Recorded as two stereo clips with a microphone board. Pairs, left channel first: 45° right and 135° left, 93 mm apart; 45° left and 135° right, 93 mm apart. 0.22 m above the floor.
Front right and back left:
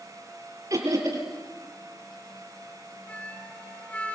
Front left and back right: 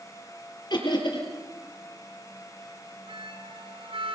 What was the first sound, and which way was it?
Laughter, 80° left.